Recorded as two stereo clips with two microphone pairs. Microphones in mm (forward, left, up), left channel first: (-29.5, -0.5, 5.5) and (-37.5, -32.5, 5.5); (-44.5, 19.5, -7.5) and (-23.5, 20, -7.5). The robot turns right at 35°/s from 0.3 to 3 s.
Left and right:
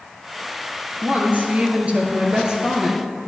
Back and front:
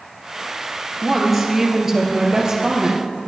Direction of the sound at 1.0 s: 100° right.